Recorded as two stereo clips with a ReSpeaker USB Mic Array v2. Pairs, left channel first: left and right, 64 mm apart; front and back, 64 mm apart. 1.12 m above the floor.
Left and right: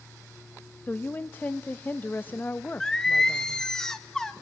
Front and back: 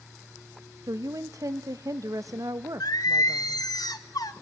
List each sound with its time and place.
0.9 s a woman speaking: 150° left, 0.9 m
2.8 s singing: 10° left, 1.4 m